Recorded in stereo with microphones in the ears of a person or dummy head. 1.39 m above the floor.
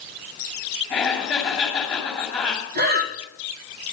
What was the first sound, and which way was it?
Laughter, 5° left (ahead or behind).